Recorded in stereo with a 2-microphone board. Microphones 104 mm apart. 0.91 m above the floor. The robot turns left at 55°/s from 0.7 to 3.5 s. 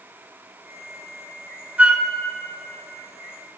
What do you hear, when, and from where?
1.8 s a flute: 15° right (ahead or behind), 0.7 m; by 2.0 s 5° right (ahead or behind), 0.7 m